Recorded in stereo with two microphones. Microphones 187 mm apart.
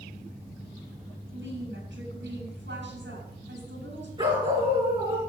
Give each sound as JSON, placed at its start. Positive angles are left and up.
{"t": 1.3, "sound": "a woman speaking", "side_deg": -80, "distance_m": 6.0}
{"t": 4.2, "sound": "a dog barking", "side_deg": -25, "distance_m": 4.5}